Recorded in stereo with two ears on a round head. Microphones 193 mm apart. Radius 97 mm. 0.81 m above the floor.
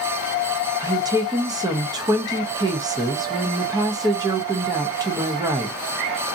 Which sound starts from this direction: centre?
A woman speaking, at 0.8 s.